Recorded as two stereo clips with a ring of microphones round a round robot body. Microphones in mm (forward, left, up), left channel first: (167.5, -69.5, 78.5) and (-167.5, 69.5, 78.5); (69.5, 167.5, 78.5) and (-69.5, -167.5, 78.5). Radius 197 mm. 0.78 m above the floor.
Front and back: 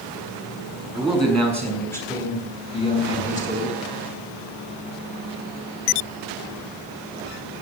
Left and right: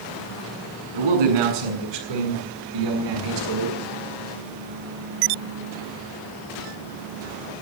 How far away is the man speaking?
About 7 m.